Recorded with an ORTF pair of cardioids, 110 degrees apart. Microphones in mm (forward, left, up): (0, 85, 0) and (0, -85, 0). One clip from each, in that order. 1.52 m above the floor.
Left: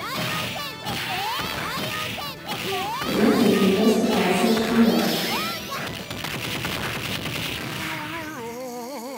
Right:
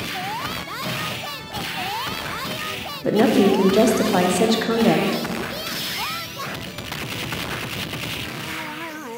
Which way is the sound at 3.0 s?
70° right.